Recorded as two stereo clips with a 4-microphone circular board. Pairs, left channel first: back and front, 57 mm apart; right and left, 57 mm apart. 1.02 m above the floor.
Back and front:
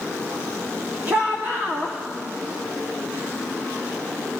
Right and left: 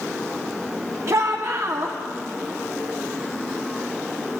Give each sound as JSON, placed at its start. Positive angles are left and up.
{"t": 1.1, "sound": "a shout", "azimuth_deg": 60, "distance_m": 1.8}